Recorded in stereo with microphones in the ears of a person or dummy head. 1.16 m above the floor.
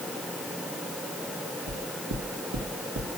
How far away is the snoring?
No snoring in this recording.